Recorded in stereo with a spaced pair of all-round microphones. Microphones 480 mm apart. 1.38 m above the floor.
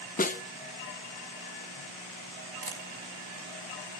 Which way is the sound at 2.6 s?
85° right.